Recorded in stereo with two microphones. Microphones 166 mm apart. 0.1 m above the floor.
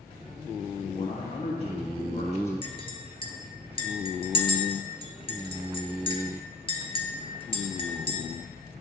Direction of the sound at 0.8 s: 35° left (ahead or behind).